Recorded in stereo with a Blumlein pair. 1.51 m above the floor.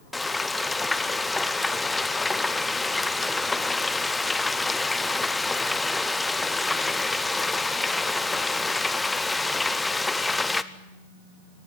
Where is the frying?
10° left, 0.9 m.